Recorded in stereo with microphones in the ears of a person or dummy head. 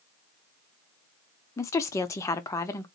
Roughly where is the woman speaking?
Centre.